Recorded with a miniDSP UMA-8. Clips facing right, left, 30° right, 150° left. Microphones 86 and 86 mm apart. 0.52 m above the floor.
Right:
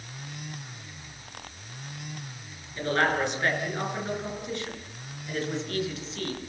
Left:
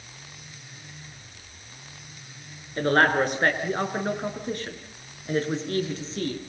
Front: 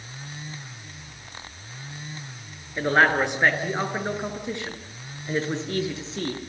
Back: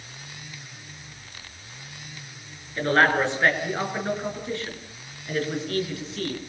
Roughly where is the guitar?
No guitar in this recording.